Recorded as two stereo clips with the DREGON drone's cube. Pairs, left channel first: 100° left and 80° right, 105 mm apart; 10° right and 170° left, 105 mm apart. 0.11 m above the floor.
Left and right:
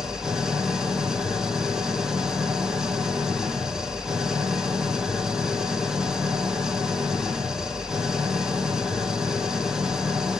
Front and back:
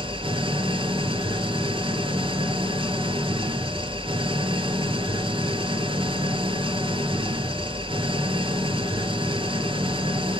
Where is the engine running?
165° right, 1.6 m.